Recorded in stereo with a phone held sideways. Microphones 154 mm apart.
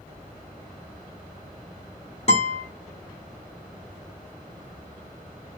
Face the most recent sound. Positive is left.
turn(degrees=45)  # may be behind; listen again after turning